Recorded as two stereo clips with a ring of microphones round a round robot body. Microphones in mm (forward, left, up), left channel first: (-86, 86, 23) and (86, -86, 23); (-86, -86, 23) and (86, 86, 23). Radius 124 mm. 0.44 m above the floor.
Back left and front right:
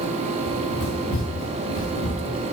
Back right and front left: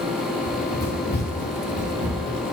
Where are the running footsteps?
Straight behind, 2.5 m; by 2.5 s 155° left, 3.5 m.